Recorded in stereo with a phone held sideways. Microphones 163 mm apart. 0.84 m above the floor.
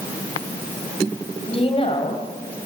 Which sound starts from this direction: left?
A woman speaking, at 1.5 s.